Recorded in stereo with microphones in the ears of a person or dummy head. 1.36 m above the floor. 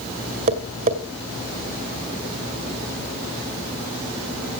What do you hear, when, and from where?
0.5 s tapping: 40° right (ahead or behind), 2.0 m